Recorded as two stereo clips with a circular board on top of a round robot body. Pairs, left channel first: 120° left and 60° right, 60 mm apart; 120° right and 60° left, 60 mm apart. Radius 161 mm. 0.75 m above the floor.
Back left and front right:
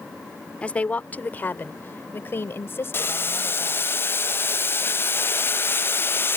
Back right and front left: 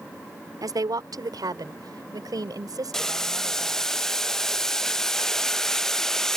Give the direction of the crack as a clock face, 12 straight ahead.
I don't hear a crack.